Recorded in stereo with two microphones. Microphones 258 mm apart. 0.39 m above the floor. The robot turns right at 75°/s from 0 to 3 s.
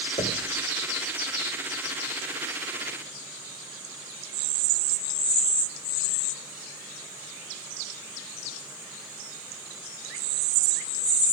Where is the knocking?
30° left (ahead or behind), 1.5 m; by 0.6 s 10° left (ahead or behind), 1.5 m.